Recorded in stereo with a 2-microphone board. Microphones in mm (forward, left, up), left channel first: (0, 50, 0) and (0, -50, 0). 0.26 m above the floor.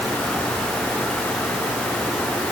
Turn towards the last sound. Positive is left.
No sound to turn to.